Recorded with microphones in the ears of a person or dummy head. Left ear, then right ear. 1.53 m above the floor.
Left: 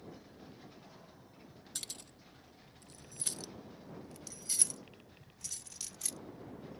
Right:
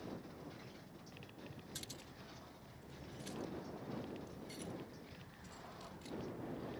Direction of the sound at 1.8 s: 25° left (ahead or behind).